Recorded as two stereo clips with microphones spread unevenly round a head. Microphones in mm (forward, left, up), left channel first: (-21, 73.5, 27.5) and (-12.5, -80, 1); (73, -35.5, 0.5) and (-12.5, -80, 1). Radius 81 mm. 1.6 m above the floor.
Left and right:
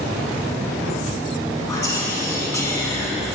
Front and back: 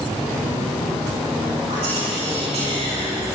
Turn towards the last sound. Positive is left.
turn(degrees=165)